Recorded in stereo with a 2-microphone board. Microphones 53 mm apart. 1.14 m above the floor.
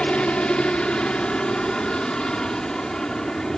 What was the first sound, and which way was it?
A helicopter, 20° left (ahead or behind).